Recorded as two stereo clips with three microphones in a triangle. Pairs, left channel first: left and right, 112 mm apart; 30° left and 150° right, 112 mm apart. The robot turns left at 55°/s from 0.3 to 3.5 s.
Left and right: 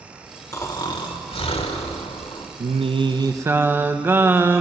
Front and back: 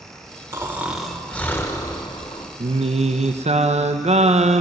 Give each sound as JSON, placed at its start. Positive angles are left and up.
{"t": 0.5, "sound": "snoring", "azimuth_deg": 150, "distance_m": 1.3}
{"t": 2.6, "sound": "singing", "azimuth_deg": -110, "distance_m": 0.7}